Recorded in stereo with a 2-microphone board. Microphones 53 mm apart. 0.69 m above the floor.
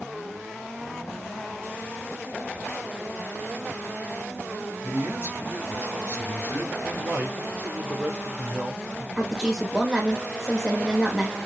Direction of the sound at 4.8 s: 65° right (ahead or behind).